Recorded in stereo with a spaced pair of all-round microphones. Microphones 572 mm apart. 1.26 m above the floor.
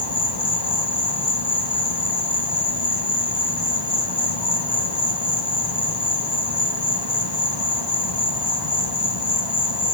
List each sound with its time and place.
0.0 s an insect: 45° left (ahead or behind), 1.0 m